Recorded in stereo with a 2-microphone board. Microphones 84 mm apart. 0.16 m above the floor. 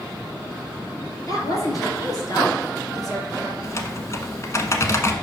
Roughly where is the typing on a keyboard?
Left.